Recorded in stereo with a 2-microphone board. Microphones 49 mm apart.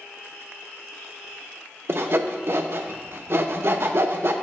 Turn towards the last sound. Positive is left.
turn(degrees=-55)  # may be behind; listen again after turning